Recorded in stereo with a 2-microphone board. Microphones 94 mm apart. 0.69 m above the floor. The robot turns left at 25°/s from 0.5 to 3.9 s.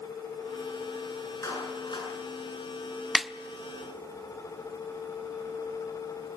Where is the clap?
35° left (ahead or behind), 8.5 m; by 2.1 s 55° left (ahead or behind), 8.5 m.